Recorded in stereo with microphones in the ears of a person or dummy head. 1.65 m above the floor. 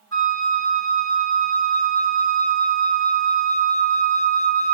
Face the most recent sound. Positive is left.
turn(degrees=20)  # may be behind; listen again after turning